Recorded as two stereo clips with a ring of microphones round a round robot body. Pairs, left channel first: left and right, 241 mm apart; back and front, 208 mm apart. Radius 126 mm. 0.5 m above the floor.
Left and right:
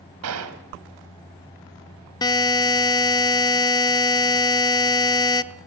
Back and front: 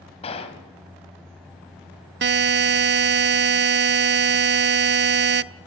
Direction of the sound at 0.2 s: 115° right.